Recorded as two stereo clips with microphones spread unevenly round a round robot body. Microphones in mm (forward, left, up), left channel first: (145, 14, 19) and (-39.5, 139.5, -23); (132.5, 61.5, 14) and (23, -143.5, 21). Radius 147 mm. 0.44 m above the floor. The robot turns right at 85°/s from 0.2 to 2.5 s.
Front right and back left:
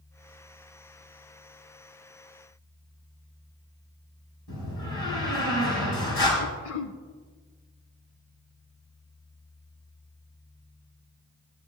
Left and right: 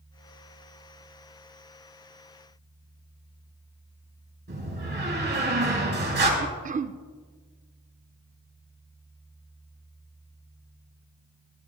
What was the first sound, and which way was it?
A door slam, 75° right.